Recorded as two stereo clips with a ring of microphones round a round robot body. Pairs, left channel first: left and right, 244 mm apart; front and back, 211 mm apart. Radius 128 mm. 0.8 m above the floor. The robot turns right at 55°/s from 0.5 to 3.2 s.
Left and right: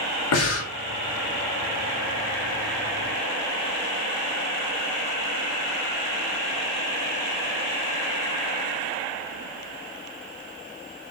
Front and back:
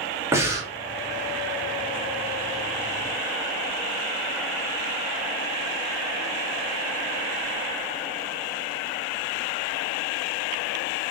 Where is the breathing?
105° left, 1.5 m; by 0.7 s 115° left, 1.5 m.